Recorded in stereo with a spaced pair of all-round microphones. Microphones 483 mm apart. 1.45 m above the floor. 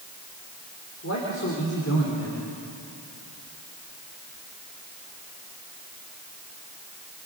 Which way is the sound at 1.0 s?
30° left (ahead or behind).